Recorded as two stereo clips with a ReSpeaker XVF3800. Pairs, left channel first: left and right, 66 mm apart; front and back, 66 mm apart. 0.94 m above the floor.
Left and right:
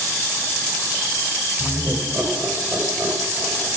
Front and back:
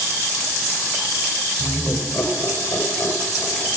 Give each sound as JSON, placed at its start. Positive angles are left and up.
{"t": 1.6, "sound": "laughter", "azimuth_deg": -50, "distance_m": 4.5}